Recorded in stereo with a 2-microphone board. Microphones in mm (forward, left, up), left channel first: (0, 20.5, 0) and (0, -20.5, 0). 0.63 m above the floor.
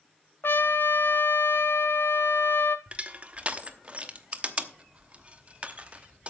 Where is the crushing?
25° right (ahead or behind), 0.9 m.